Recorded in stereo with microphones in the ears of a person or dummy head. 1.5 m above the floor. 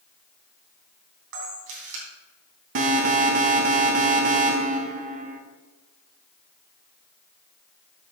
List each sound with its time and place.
1.3 s a camera shutter: 70° right (ahead or behind), 3 m
2.8 s an alarm: 55° right (ahead or behind), 1.1 m